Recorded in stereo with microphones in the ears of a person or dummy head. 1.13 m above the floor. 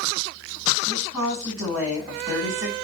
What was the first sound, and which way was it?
A woman speaking, 15° right (ahead or behind).